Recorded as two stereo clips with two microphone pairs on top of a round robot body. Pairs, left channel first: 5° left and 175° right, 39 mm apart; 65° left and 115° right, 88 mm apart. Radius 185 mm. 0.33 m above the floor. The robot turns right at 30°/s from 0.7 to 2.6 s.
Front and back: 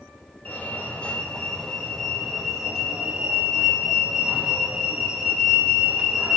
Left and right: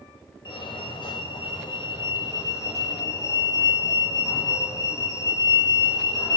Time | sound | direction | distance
0.5 | a fire alarm | 55° left | 4.5 m